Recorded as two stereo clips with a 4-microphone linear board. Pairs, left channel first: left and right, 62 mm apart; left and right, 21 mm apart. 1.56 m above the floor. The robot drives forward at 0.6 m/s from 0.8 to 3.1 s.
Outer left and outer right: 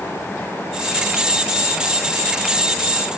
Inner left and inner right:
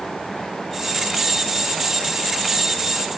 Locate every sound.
Only background noise.